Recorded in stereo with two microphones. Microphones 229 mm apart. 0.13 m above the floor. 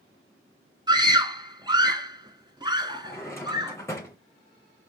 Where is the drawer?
10° left (ahead or behind), 2.5 m.